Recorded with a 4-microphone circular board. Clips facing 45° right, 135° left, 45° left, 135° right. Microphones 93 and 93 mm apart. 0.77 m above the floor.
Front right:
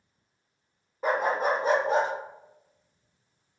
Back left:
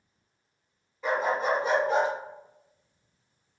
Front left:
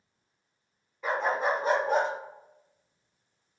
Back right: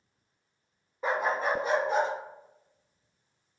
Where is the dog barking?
80° right, 0.5 m; by 2.1 s 15° left, 1.1 m.